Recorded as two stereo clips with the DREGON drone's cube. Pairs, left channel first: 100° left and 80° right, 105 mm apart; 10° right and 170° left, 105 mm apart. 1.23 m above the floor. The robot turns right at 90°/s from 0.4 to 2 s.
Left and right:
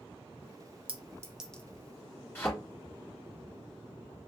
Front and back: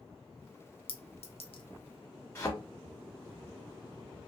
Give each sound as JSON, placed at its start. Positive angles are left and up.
{"t": 0.9, "sound": "a clink", "azimuth_deg": -40, "distance_m": 0.6}
{"t": 2.4, "sound": "a thud", "azimuth_deg": 40, "distance_m": 1.5}